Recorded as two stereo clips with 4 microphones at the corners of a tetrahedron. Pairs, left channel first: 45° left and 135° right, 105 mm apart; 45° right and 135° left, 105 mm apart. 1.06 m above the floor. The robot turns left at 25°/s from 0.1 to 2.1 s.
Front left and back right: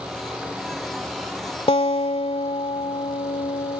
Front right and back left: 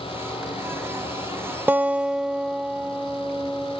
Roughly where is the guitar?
Ahead left.